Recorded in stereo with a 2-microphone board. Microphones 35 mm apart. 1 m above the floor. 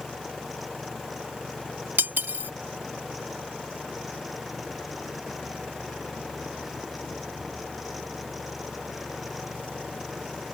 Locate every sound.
2.0 s cutlery clinking: 80° right